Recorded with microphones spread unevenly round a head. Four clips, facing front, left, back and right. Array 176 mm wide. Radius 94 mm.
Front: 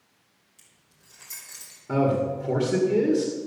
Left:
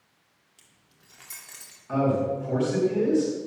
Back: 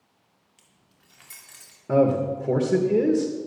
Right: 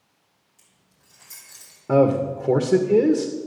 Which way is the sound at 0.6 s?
110° left.